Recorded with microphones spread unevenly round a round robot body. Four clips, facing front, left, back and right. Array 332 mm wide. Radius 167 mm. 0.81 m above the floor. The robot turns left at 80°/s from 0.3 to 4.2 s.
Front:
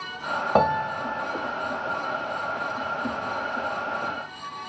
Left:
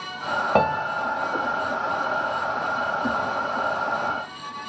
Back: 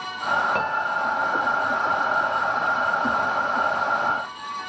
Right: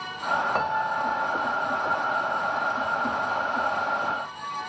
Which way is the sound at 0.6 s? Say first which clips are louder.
Left 4 dB, front 2 dB; 50° left.